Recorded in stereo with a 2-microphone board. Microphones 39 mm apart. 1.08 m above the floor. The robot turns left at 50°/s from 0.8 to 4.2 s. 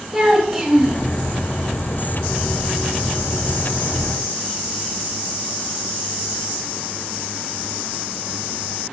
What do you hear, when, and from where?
0.1 s a child speaking: 10° right (ahead or behind), 1.1 m; by 1.0 s 5° left (ahead or behind), 1.1 m